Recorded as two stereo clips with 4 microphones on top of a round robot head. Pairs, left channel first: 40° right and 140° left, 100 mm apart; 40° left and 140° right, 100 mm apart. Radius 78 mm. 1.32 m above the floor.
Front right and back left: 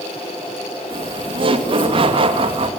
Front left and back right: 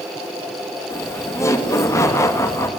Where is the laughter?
105° left, 2.5 m.